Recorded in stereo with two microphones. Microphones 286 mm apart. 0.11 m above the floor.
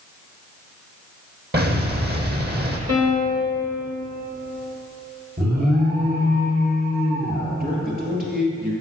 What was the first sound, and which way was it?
An explosion, 40° right (ahead or behind).